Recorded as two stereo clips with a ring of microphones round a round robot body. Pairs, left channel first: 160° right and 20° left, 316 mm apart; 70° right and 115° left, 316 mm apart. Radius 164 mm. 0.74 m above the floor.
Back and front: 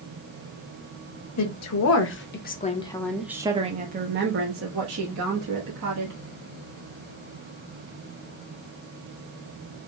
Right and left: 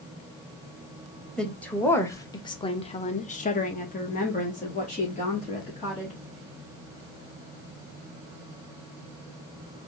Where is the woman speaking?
155° right, 1.1 m; by 6.2 s straight ahead, 1.7 m.